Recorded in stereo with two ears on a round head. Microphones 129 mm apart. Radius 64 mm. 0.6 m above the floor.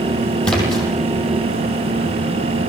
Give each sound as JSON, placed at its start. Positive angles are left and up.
{"t": 0.4, "sound": "a splash", "side_deg": 5, "distance_m": 7.5}